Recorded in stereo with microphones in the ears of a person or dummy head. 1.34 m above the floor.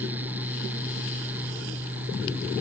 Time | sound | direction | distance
0.0 | a fan | 10° right (ahead or behind) | ?